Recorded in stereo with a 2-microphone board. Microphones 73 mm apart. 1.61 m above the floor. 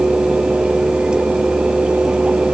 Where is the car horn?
I don't hear a car horn.